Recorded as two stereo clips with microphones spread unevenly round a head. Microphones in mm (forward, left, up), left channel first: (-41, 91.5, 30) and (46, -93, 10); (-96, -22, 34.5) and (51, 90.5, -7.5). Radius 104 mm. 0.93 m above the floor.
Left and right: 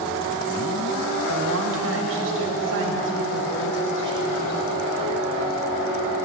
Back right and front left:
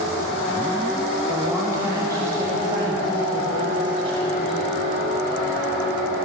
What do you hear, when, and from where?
1.3 s a woman speaking: 45° right, 5 m; by 4.6 s 30° right, 7 m